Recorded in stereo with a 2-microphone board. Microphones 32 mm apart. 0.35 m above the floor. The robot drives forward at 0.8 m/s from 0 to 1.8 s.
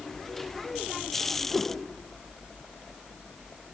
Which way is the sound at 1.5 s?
5° left (ahead or behind).